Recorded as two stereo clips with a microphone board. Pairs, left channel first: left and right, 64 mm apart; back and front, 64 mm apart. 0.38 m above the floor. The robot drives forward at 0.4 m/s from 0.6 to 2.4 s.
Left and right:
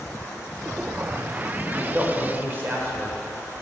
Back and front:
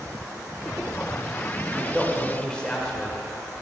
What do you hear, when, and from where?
1.7 s a man speaking: 85° right, 0.9 m; by 3.2 s 115° right, 0.9 m